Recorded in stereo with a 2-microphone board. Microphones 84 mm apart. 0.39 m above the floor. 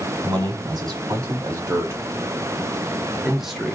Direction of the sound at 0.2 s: 55° right (ahead or behind).